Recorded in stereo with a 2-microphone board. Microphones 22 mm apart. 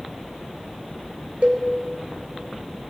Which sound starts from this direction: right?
A cowbell, at 1.4 s.